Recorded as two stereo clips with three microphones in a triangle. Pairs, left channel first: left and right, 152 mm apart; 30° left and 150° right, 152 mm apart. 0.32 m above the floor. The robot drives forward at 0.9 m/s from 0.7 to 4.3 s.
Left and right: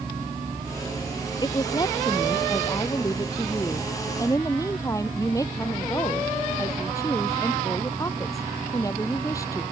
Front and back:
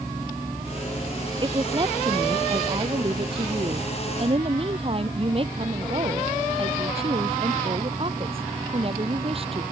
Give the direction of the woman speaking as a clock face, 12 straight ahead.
7 o'clock.